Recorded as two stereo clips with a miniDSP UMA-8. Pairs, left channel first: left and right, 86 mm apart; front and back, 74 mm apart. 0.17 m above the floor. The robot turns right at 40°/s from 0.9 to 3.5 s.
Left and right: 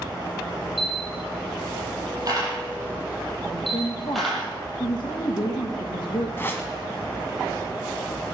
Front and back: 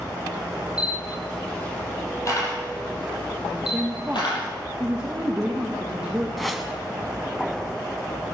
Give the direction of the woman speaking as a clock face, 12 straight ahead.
9 o'clock.